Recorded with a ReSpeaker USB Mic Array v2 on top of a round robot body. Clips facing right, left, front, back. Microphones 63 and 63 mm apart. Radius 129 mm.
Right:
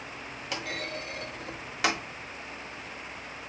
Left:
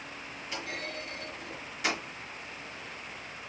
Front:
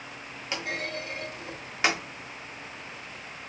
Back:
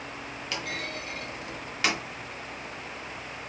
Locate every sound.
0.5 s a clunk: 65° right, 0.9 m